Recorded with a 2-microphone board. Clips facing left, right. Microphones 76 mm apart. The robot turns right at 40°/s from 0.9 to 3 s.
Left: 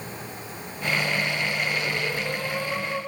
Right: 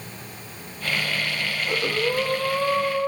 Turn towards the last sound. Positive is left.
turn(degrees=-35)